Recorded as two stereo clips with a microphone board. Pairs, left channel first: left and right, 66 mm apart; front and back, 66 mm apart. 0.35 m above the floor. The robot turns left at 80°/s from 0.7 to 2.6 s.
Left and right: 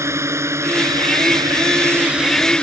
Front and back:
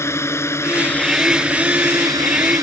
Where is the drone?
45° right; by 2.6 s 160° left.